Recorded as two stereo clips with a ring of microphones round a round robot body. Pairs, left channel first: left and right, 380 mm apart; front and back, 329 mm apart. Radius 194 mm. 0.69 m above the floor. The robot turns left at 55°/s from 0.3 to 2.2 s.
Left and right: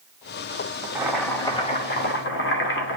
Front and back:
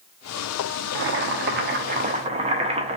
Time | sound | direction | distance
0.9 | boiling | 170° right | 0.7 m